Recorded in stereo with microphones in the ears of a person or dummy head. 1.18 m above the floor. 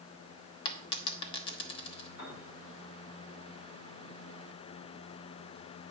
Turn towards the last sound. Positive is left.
turn(degrees=55)  # may be behind; listen again after turning